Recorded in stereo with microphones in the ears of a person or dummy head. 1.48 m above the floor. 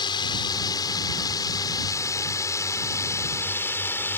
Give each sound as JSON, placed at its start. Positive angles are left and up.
{"t": 0.0, "sound": "a drone", "side_deg": 25}